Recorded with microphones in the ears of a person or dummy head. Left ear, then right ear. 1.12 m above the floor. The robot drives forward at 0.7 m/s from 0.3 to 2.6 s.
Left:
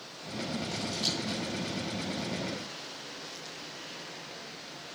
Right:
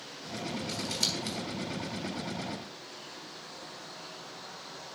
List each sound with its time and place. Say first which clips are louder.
0.7 s scissors: right 2 dB; 70° right (ahead or behind), 3.5 m; by 1.4 s 75° right (ahead or behind), 3.5 m